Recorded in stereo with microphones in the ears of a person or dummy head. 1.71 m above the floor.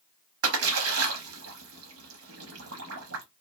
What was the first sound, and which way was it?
A splash, 80° right.